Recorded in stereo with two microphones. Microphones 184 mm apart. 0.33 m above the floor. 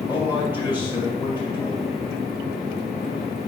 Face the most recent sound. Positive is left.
turn(degrees=-10)  # may be behind; listen again after turning